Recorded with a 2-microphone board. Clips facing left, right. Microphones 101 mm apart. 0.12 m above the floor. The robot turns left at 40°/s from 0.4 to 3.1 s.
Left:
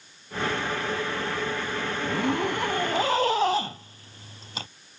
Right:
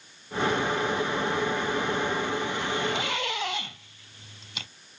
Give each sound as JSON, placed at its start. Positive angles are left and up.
{"t": 2.0, "sound": "a zipper", "azimuth_deg": 85}